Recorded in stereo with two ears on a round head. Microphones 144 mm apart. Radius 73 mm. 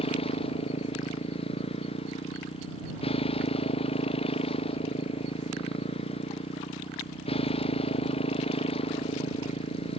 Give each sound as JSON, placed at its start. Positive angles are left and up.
{"t": 0.0, "sound": "a motorcycle", "side_deg": 35}